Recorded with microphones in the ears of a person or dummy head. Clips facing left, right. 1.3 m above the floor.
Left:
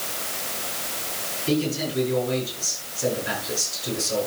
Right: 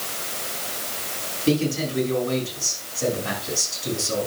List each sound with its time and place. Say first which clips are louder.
1.5 s a man speaking: right 2 dB; 70° right (ahead or behind), 7 m